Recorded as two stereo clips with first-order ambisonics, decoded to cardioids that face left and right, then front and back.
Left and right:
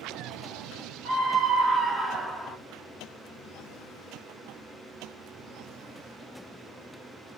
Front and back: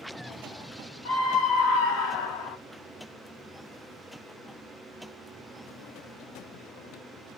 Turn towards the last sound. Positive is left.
turn(degrees=20)